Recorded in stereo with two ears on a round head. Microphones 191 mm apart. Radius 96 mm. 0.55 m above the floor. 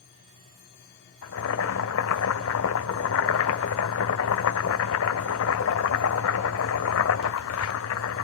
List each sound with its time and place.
1.2 s boiling: 70° left (ahead or behind), 1.8 m